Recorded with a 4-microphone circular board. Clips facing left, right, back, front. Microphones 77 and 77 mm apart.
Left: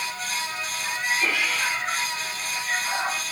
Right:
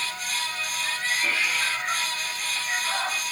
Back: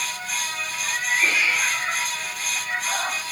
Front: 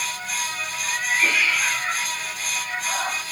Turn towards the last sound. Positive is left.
turn(degrees=160)